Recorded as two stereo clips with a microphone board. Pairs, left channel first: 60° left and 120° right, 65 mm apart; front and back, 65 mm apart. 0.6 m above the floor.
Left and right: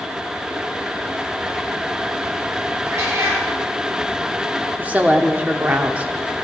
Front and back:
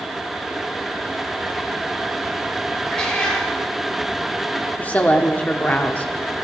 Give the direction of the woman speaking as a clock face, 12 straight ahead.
2 o'clock.